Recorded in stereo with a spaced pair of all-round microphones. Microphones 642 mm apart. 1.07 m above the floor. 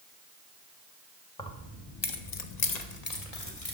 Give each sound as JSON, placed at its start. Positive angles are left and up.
{"t": 1.4, "sound": "keys jangling", "side_deg": 5, "distance_m": 1.2}